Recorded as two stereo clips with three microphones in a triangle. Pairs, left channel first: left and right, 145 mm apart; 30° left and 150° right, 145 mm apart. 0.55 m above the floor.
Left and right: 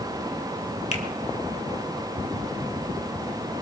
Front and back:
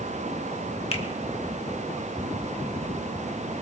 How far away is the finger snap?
About 1.4 m.